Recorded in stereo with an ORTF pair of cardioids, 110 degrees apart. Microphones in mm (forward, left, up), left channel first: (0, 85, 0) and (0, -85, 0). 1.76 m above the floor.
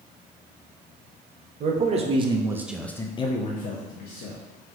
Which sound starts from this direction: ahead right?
A man speaking, at 1.6 s.